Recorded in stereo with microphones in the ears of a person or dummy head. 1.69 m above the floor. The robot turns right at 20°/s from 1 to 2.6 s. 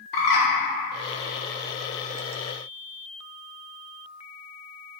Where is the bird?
60° left (ahead or behind), 0.6 m.